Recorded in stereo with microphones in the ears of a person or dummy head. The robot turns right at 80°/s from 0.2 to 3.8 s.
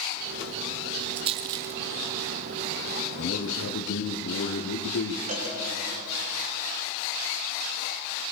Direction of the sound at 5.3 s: 35° right (ahead or behind).